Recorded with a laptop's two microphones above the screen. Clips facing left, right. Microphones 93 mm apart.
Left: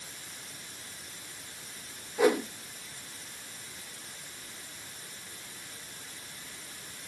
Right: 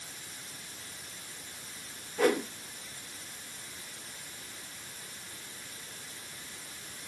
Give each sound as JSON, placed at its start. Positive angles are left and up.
{"t": 2.2, "sound": "a whoosh", "side_deg": 10, "distance_m": 0.9}